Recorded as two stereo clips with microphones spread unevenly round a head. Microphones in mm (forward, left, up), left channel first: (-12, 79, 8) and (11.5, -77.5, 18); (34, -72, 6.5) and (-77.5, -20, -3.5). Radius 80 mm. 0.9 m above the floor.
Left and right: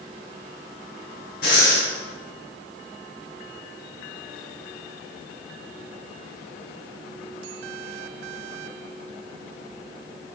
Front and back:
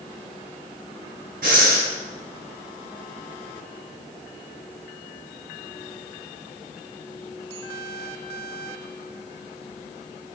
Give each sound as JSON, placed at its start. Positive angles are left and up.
{"t": 1.4, "sound": "breathing", "azimuth_deg": 135, "distance_m": 7.0}